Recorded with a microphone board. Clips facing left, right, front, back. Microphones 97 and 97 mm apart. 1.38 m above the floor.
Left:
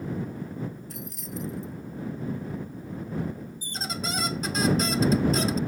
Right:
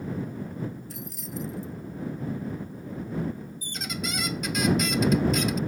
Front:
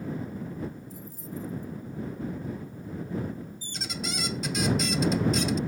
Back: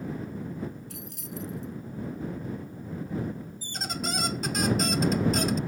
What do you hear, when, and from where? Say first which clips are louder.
0.9 s keys jangling: even, front 1 dB; straight behind
3.6 s a squeak: left 1 dB, back 5 dB; 145° left